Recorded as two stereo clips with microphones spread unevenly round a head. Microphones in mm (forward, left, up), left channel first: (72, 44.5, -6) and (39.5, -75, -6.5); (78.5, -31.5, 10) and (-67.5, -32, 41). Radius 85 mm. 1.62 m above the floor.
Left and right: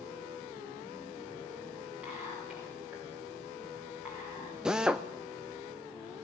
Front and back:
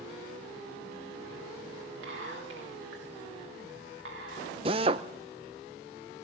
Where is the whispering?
170° left, 3 m.